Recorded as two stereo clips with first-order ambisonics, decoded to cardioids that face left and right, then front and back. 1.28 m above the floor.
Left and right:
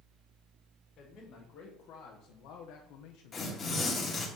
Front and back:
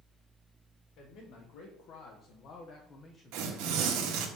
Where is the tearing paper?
160° left, 1.3 m.